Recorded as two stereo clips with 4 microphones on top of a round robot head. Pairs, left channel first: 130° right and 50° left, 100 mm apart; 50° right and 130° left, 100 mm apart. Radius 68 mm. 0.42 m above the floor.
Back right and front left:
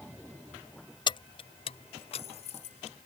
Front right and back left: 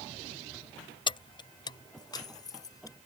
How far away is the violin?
I don't hear a violin.